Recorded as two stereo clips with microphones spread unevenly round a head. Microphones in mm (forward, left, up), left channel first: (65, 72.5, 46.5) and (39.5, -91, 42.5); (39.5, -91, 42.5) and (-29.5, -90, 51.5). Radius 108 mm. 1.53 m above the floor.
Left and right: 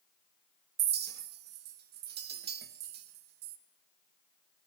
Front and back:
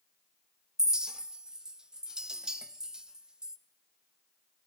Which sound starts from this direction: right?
A clink, at 0.8 s.